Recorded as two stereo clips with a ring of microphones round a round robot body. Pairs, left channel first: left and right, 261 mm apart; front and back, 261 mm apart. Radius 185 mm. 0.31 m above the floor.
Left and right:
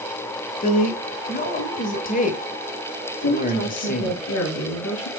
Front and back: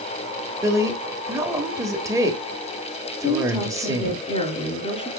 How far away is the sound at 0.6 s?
About 1.3 m.